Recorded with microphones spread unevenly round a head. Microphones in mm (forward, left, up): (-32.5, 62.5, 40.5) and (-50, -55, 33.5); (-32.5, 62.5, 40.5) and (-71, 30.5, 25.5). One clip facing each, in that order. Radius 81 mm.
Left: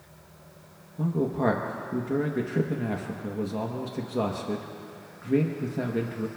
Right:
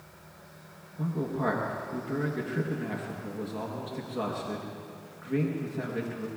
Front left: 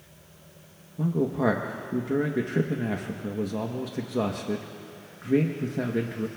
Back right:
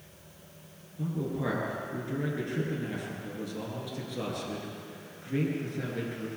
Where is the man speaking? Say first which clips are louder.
Left 5 dB, front left 8 dB; 20° left, 1.0 m.